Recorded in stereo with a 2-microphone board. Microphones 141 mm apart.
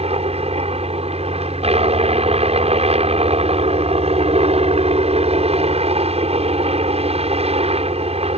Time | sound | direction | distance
0.0 | a helicopter | 45° right (ahead or behind) | ?